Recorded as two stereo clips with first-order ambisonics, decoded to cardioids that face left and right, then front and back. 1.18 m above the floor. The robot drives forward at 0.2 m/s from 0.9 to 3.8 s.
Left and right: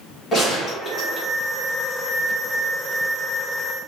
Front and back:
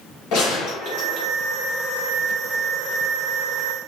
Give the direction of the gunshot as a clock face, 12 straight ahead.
11 o'clock.